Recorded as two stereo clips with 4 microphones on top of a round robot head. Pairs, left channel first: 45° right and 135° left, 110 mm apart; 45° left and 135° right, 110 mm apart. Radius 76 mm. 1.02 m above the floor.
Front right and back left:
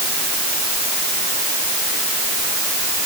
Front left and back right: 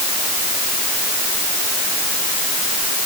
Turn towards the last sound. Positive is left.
No sound to turn to.